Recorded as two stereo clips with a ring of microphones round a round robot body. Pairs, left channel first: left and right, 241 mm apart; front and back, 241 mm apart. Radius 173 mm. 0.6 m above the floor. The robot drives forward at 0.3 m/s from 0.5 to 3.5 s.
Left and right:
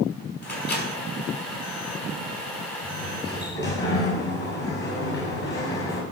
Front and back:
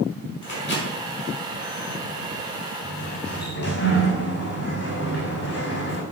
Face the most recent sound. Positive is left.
turn(degrees=45)